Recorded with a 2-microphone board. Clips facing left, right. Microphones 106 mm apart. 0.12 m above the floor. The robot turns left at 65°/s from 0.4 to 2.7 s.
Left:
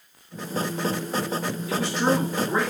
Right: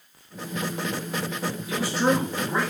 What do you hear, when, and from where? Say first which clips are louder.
1.7 s a man speaking: even; 150° right, 1.3 m; by 2.7 s 145° left, 1.3 m